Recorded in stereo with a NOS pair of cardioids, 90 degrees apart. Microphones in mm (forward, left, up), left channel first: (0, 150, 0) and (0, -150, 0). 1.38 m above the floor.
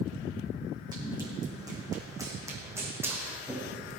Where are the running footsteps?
15° right, 5 m; by 3.9 s 5° right, 4 m.